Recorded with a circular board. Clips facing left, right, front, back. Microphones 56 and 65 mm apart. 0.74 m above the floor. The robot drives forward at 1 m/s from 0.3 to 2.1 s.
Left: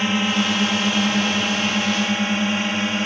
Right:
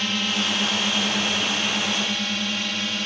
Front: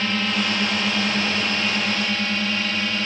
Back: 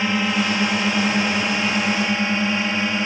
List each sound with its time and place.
0.0 s a drone: 120° left; by 3.1 s 125° left